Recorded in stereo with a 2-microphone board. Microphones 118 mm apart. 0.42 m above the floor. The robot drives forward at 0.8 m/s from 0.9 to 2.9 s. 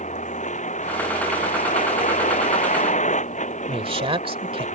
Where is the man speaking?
50° right (ahead or behind).